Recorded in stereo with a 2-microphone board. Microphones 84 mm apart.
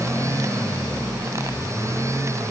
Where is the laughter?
I don't hear laughter.